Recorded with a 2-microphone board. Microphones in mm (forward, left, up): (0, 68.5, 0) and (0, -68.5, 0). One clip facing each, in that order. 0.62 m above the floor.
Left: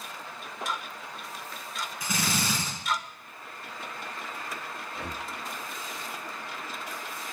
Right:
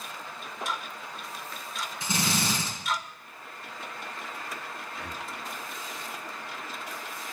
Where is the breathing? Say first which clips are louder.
Left 3 dB; 30° left (ahead or behind), 0.7 m.